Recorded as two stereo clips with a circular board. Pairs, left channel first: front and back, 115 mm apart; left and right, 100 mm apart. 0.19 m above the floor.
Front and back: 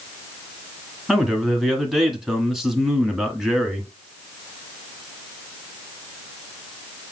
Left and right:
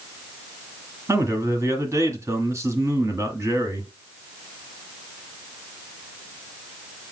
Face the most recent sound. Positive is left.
turn(degrees=-95)